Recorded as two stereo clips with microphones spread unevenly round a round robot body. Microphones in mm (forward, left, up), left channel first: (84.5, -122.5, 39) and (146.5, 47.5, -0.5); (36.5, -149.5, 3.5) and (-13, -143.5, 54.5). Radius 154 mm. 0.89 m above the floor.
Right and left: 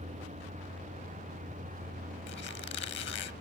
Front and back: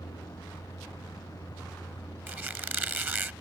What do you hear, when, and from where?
0.0 s a vehicle: 20° left; by 3.4 s 25° left
2.3 s a squeak: 155° right